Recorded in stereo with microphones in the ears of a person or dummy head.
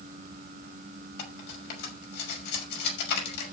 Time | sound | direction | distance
1.2 | cutlery clinking | 60° left (ahead or behind) | 5.5 m